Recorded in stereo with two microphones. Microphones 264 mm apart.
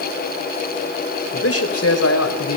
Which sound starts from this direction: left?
A man speaking, at 1.3 s.